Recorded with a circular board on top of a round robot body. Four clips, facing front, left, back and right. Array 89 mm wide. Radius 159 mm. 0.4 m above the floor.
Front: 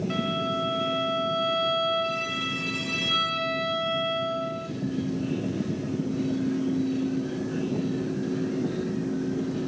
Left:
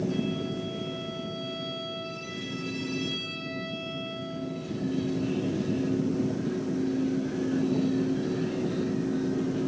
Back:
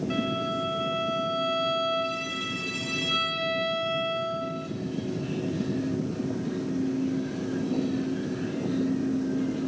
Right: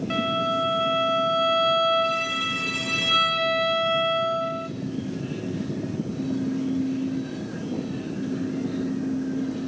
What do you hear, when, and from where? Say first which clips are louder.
0.1 s a violin: right 6 dB, even; 75° right, 2.5 m